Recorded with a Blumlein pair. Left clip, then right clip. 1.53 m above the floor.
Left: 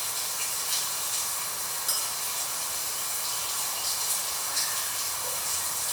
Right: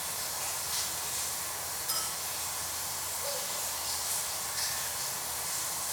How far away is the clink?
About 3.5 m.